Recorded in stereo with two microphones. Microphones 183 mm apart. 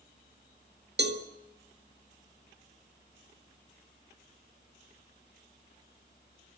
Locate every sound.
1.0 s a cowbell: 65° right (ahead or behind), 1.9 m